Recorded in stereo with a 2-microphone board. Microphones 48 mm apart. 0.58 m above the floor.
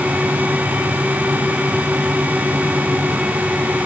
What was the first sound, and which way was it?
Only background noise.